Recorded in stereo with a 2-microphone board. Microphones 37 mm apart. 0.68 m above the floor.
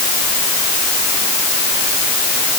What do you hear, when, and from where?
Only background noise.